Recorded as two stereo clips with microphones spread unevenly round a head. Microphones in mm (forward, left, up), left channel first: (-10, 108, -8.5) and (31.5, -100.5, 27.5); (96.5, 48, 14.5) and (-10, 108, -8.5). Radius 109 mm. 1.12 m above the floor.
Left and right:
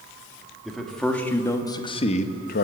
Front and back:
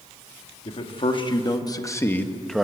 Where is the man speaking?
10° left, 2.5 m; by 2.6 s 65° left, 1.4 m.